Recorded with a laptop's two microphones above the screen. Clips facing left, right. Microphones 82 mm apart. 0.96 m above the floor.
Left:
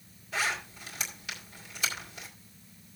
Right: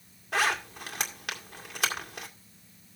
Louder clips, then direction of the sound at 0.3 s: Right 5 dB; 70° right (ahead or behind).